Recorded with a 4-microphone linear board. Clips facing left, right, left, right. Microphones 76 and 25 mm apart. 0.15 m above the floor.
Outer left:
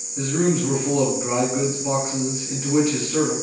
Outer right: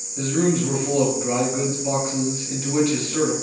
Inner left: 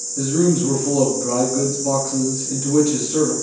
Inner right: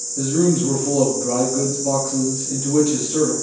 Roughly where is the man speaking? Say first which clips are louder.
Even, even; centre.